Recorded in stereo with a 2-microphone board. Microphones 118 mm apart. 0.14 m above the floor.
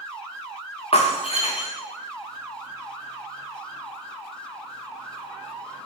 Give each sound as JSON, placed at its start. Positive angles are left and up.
{"t": 0.9, "sound": "breaking glass", "side_deg": 55, "distance_m": 4.0}